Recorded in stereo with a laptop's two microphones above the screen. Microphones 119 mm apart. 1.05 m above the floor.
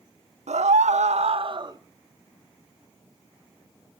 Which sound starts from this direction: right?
A scream, at 0.5 s.